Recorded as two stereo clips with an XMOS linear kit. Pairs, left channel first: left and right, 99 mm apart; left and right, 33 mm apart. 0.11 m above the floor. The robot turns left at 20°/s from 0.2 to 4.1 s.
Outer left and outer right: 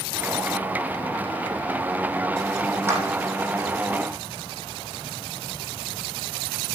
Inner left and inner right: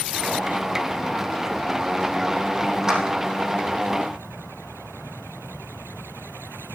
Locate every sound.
2.9 s a clap: 25° right (ahead or behind), 4 m; by 3.0 s 20° right (ahead or behind), 4 m